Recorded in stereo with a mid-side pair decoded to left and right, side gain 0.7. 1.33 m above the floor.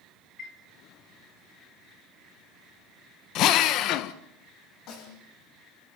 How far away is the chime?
About 4 m.